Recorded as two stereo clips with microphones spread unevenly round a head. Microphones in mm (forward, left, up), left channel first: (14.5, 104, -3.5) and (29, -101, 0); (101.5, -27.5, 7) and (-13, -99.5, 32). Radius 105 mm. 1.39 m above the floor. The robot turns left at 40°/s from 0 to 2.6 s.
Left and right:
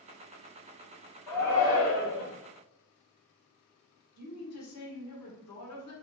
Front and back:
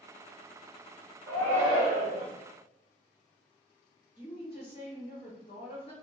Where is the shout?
Straight behind, 1.8 m; by 2.3 s 140° left, 1.8 m.